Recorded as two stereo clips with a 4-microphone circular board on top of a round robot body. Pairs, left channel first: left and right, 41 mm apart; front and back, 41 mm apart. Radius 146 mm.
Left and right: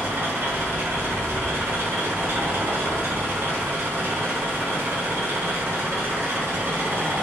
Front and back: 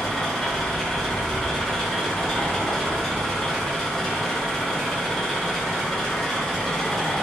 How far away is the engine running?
About 1.0 m.